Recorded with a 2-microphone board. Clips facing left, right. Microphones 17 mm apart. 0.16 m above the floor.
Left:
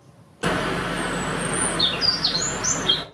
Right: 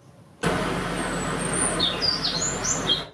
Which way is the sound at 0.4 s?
30° left (ahead or behind).